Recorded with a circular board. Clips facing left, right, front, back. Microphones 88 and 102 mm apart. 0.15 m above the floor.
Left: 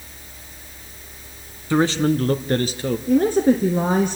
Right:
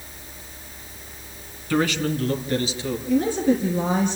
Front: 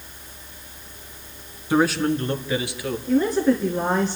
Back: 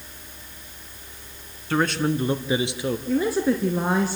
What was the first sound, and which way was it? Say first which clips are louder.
A man speaking: left 4 dB, front 3 dB; 55° left.